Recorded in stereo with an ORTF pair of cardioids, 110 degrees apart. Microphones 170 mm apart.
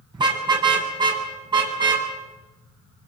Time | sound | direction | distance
0.1 | a car horn | 25° right | 7 m